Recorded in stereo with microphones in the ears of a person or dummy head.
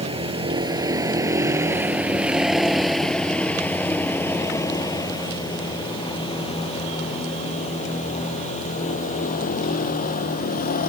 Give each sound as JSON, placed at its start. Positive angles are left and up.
{"t": 0.0, "sound": "a vehicle", "side_deg": -30}